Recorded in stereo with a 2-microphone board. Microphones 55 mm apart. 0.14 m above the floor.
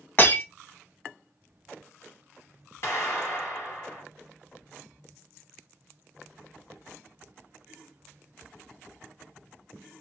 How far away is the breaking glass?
About 1.8 m.